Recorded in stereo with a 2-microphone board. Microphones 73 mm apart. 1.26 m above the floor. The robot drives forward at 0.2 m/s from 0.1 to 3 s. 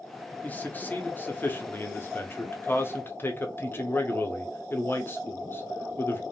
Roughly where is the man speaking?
Left.